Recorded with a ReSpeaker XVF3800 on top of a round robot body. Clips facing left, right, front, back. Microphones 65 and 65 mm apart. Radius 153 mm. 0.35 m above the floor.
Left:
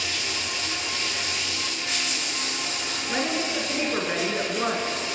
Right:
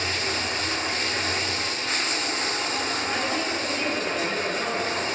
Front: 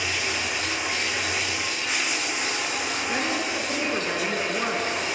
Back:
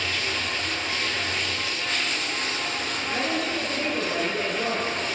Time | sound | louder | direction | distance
0.0 | running water | right 3 dB, front 1 dB | 70° right | 0.8 m
3.1 | a woman speaking | left 4 dB, back 1 dB | 35° left | 5 m